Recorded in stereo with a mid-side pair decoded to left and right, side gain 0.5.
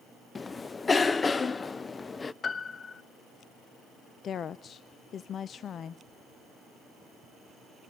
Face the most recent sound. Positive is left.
turn(degrees=50)